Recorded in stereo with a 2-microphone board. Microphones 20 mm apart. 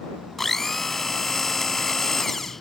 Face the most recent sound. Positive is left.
turn(degrees=10)  # may be behind; listen again after turning